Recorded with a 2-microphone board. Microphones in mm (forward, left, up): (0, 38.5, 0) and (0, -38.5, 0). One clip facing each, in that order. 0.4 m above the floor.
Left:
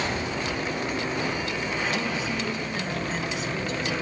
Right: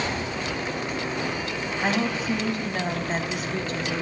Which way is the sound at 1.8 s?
50° right (ahead or behind).